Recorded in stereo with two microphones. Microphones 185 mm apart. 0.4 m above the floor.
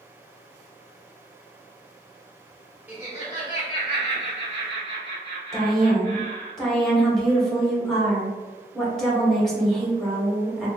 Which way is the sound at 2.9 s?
10° right (ahead or behind).